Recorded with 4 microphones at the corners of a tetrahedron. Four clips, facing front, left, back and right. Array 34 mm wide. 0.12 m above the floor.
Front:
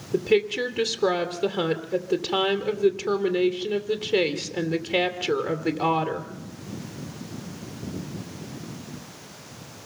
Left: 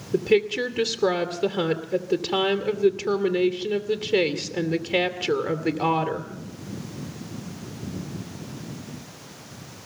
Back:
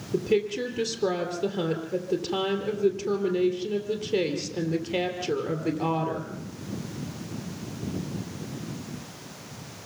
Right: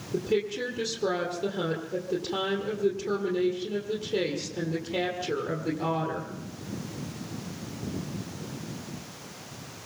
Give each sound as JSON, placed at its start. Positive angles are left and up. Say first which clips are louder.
{"t": 0.1, "sound": "a woman speaking", "louder": "left 7 dB, front 3 dB", "azimuth_deg": 65, "distance_m": 2.0}